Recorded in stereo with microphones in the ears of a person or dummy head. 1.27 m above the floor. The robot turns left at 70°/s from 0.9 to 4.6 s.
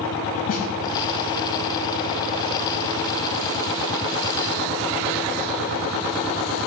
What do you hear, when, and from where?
0.5 s a snare drum: 45° left (ahead or behind), 3 m